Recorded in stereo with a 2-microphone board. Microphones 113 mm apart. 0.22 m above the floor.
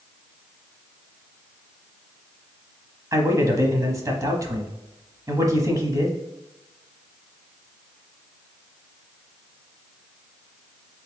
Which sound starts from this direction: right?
A man speaking, at 3.1 s.